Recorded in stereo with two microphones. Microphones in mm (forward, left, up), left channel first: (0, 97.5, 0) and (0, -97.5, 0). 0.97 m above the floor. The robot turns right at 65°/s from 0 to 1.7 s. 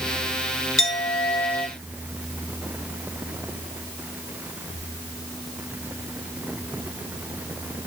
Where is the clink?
85° left, 1.2 m; by 1.7 s 145° left, 1.2 m.